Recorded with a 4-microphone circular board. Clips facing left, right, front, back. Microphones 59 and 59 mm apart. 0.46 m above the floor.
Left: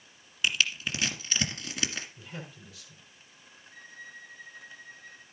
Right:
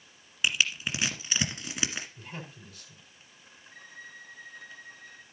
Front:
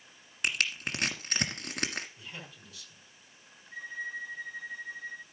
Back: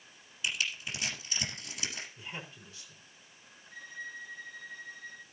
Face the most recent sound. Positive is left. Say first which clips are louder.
# even, front 5 dB
turn(degrees=-70)